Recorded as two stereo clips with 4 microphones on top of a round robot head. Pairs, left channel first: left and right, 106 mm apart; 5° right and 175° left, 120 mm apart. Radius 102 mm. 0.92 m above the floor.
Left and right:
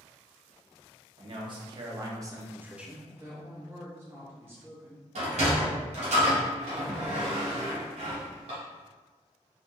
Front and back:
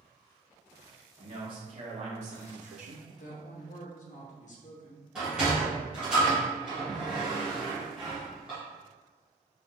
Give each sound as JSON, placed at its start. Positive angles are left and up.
{"t": 1.2, "sound": "a man speaking", "azimuth_deg": -125, "distance_m": 1.6}
{"t": 3.1, "sound": "a woman speaking", "azimuth_deg": -20, "distance_m": 1.1}
{"t": 5.2, "sound": "a sliding door", "azimuth_deg": -100, "distance_m": 1.6}